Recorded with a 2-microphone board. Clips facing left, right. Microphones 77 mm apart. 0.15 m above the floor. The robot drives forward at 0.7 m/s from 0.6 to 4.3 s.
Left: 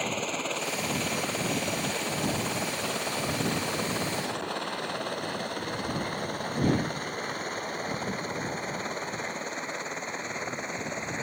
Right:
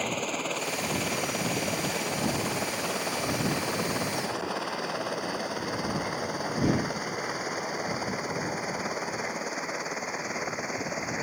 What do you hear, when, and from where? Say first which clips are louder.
0.0 s a helicopter: right 1 dB; centre (ahead or behind); by 11.2 s 5° right (ahead or behind)